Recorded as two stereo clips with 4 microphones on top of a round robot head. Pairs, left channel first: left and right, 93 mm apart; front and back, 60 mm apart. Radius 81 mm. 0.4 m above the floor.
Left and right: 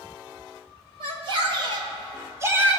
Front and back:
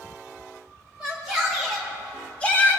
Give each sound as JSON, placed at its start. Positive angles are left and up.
{"t": 1.0, "sound": "a shout", "azimuth_deg": -105, "distance_m": 2.0}